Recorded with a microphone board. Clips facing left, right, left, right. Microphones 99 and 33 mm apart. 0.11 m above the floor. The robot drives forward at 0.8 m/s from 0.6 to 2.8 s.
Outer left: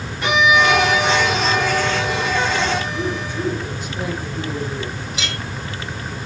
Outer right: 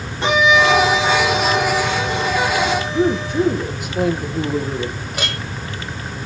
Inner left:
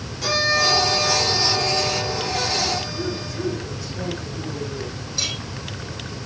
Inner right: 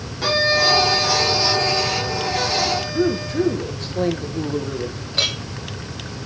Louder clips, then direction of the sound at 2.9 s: Outer right 7 dB, inner right 8 dB; 65° right (ahead or behind).